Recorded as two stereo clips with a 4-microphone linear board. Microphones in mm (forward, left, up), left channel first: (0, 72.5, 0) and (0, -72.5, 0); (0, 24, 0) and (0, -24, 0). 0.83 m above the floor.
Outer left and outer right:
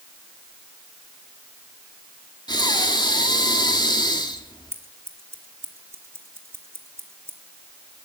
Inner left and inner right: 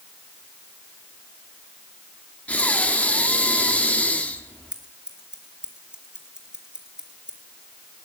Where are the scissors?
20° right (ahead or behind), 1.7 m.